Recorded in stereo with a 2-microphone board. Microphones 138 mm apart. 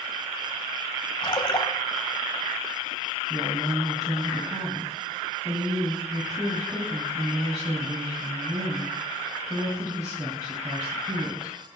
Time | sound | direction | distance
1.2 | a splash | 35° left (ahead or behind) | 1.1 m
3.3 | a woman speaking | 30° right (ahead or behind) | 2.5 m